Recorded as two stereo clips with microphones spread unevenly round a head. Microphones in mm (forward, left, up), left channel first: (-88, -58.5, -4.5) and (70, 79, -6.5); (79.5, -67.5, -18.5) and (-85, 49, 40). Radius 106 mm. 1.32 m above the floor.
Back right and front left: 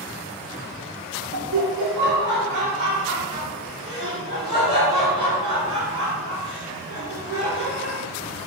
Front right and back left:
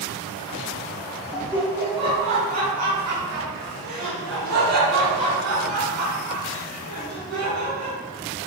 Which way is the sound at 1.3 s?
55° left.